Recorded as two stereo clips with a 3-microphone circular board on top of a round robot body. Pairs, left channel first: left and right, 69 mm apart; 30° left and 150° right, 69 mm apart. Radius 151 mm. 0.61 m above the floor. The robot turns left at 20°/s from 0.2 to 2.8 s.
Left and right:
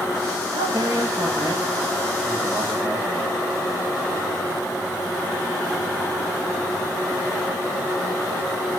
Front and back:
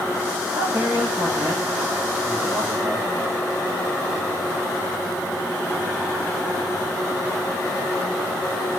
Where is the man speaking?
110° right, 5.5 m; by 3.0 s 155° right, 5.5 m.